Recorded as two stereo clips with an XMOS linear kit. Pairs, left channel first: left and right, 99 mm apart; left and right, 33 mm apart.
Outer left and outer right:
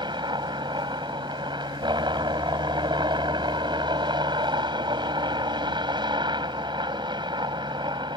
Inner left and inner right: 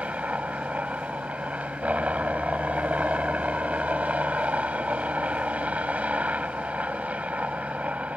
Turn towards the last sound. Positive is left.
turn(degrees=-50)  # may be behind; listen again after turning